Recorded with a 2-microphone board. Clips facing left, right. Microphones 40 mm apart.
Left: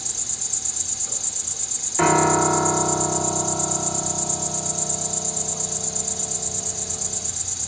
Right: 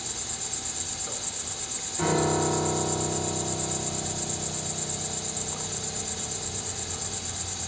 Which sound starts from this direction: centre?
An insect, at 0.0 s.